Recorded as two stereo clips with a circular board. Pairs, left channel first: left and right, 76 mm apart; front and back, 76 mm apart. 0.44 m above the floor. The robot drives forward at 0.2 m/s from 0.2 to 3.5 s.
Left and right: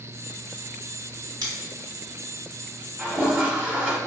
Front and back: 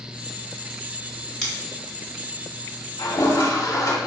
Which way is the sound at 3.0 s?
20° right.